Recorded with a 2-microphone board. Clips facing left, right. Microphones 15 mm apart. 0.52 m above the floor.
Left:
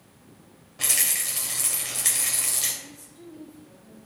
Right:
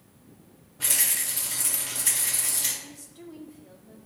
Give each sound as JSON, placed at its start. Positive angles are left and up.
{"t": 0.8, "sound": "a rattle", "side_deg": 65, "distance_m": 2.0}
{"t": 2.8, "sound": "a woman speaking", "side_deg": -20, "distance_m": 1.4}